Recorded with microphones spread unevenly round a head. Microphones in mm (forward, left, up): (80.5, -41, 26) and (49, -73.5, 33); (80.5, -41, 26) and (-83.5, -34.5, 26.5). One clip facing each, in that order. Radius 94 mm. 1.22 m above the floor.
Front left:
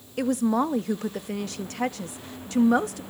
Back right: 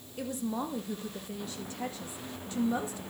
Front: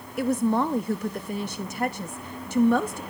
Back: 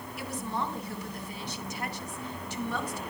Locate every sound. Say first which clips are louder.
0.2 s a woman speaking: front left 11 dB, front 12 dB; 45° left, 0.6 m